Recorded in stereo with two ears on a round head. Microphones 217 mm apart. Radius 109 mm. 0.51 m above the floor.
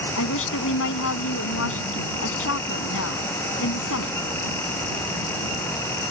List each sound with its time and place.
0.2 s a woman speaking: 60° left (ahead or behind)